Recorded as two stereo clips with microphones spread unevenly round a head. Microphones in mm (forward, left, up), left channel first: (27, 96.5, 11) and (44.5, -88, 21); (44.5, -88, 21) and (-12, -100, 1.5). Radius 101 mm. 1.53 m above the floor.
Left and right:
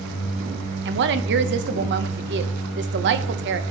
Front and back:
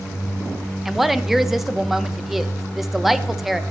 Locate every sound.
0.8 s a woman speaking: 70° right, 1.0 m